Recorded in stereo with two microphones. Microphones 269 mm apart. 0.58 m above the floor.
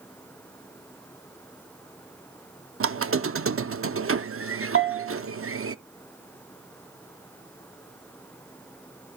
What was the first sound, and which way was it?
A squeak, 55° right (ahead or behind).